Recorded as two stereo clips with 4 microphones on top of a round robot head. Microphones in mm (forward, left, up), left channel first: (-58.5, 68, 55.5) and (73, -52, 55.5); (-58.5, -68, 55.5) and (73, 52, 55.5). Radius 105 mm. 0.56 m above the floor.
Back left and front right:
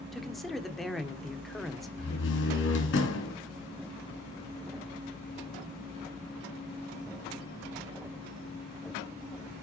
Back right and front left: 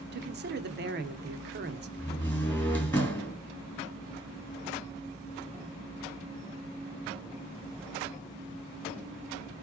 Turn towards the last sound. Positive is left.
turn(degrees=145)